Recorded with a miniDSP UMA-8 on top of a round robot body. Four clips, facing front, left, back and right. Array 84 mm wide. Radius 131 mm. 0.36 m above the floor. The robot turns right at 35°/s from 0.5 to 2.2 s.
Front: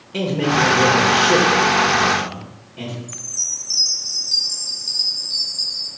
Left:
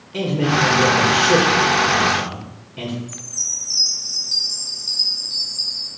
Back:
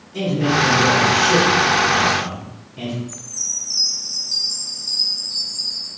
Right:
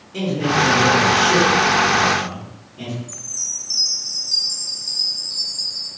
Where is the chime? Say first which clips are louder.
Left 2 dB, back 1 dB; 25° left, 1.7 m.